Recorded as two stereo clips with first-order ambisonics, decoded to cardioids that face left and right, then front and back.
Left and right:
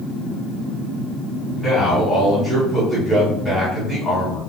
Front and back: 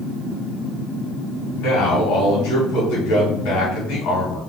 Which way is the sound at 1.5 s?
15° left.